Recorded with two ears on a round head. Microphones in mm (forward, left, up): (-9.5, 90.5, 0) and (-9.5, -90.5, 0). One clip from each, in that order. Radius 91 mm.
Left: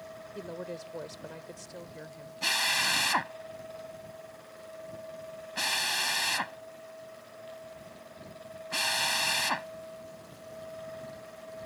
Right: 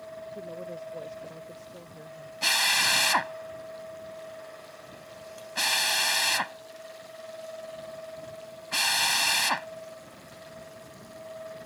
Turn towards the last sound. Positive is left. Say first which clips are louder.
# right 4 dB
turn(degrees=-25)  # may be behind; listen again after turning